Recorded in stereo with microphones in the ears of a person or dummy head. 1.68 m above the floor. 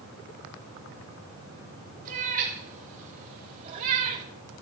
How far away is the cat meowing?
About 5.5 m.